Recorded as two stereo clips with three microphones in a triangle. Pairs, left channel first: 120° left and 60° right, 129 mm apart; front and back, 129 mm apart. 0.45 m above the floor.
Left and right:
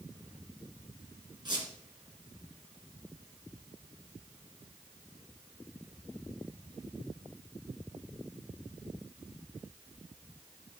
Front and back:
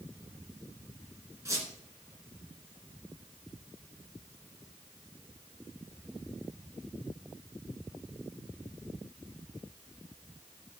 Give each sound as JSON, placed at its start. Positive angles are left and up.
{"t": 1.4, "sound": "a squeak", "azimuth_deg": -115, "distance_m": 2.5}